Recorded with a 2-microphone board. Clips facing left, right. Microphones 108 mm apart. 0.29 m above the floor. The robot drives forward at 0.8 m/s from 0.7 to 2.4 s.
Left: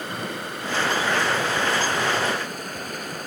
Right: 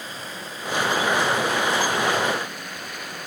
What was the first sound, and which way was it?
Running water, 65° left (ahead or behind).